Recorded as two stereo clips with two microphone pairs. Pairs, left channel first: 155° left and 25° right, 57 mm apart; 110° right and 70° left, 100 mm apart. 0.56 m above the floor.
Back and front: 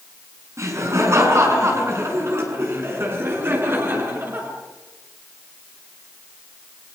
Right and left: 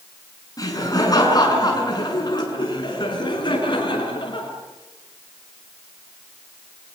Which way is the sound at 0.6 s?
60° right.